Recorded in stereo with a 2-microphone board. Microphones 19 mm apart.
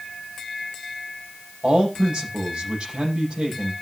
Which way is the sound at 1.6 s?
60° right (ahead or behind).